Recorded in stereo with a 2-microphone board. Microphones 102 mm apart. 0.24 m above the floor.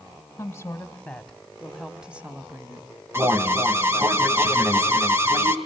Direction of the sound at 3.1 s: 25° right (ahead or behind).